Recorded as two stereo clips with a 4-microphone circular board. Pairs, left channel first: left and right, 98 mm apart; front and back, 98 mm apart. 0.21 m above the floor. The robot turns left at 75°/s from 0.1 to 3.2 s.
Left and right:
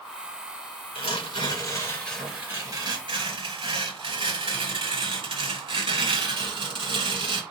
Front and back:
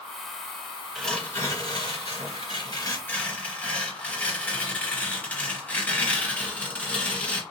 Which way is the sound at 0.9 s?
95° left.